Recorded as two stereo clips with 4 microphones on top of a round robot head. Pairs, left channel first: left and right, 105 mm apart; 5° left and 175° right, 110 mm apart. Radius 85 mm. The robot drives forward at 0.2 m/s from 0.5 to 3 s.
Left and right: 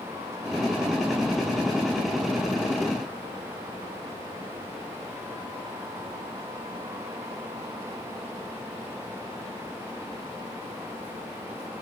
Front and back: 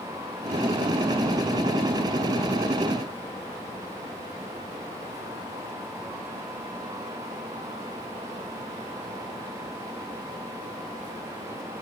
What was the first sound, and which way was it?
Only background noise.